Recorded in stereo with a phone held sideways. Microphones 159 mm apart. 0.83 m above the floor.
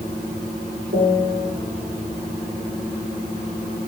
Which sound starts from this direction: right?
A piano, at 0.9 s.